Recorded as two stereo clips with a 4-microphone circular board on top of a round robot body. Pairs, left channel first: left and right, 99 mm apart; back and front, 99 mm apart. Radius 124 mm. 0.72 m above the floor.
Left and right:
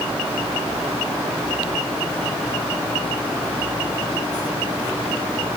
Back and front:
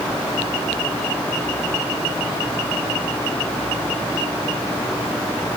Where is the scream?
I don't hear a scream.